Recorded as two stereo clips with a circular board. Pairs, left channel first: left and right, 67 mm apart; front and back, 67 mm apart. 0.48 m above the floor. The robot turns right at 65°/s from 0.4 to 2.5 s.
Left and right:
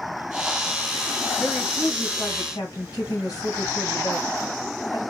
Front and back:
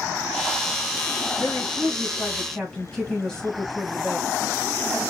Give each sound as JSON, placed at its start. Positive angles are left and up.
{"t": 1.4, "sound": "a woman speaking", "azimuth_deg": 5, "distance_m": 3.0}